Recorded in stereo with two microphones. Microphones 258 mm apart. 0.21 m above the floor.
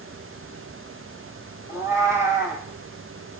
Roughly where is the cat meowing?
Centre.